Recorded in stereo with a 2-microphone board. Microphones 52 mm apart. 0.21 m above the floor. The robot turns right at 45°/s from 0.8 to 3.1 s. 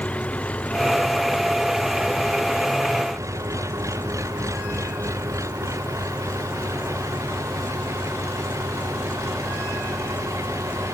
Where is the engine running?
155° left; by 10.9 s 100° right.